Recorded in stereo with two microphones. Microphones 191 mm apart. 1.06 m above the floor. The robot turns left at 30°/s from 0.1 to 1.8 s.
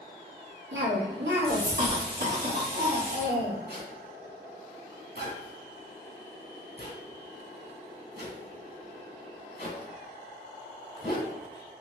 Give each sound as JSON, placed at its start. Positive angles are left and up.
{"t": 0.7, "sound": "a cough", "azimuth_deg": -90, "distance_m": 1.1}
{"t": 3.7, "sound": "a zipper", "side_deg": 65, "distance_m": 1.4}